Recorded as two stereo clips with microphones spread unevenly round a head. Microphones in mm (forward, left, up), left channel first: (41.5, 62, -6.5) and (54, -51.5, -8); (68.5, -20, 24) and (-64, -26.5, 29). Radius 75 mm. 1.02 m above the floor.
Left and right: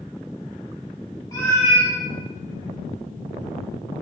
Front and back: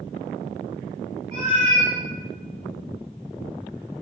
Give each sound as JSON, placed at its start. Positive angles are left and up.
{"t": 1.3, "sound": "a cat meowing", "azimuth_deg": 145, "distance_m": 1.2}